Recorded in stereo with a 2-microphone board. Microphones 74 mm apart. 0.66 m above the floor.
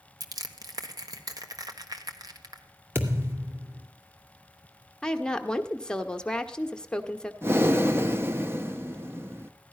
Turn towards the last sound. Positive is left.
turn(degrees=-30)  # may be behind; listen again after turning